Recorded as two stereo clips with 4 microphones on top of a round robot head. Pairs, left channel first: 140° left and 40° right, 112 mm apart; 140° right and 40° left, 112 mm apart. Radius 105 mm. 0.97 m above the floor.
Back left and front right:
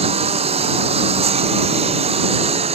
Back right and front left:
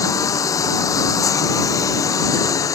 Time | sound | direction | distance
0.0 | a lawn mower | 75° right | ?